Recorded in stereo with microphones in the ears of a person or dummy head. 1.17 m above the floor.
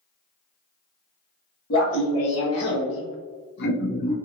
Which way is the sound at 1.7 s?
75° left (ahead or behind).